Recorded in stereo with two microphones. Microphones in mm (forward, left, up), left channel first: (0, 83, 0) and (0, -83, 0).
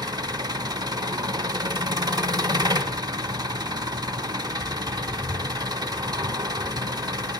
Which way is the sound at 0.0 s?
25° right (ahead or behind).